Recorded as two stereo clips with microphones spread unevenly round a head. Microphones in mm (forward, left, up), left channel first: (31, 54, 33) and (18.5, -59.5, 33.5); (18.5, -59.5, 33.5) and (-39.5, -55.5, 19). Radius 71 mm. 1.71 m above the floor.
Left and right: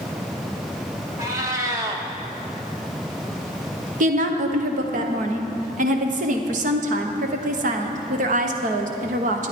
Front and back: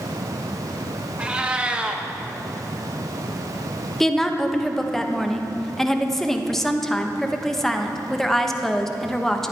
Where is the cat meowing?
95° right, 1.0 m.